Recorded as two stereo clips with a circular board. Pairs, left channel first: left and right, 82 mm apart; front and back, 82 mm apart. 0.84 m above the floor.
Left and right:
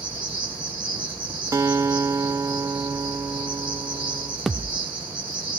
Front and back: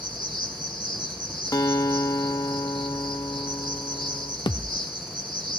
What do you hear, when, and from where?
0.0 s an insect: 165° right, 7.5 m
1.5 s a guitar: 40° right, 0.6 m
4.5 s a thud: 5° right, 0.7 m